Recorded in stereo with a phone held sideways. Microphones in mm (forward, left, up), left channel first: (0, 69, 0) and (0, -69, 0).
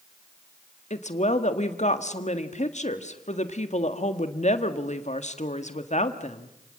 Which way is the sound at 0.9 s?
55° left (ahead or behind).